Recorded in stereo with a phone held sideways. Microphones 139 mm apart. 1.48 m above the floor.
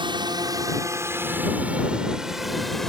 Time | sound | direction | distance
0.0 | a drone | 35° right (ahead or behind) | ?